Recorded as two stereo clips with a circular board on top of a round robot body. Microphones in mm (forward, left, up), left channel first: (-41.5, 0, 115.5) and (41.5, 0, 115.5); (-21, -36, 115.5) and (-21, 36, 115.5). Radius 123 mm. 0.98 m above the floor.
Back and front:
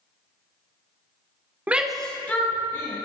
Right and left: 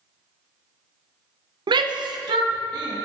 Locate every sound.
1.7 s a shout: 70° left, 0.8 m; by 3.0 s 115° left, 2.5 m